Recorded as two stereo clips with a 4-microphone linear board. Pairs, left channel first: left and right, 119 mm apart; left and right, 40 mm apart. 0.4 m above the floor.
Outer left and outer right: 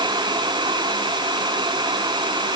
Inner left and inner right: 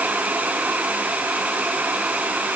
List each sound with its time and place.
Only background noise.